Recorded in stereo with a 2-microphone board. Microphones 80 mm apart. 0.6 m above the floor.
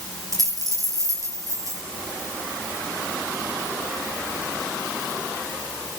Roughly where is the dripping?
I don't hear dripping.